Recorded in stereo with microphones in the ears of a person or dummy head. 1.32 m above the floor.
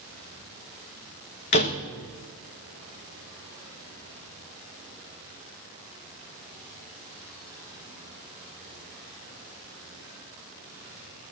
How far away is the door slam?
About 0.7 m.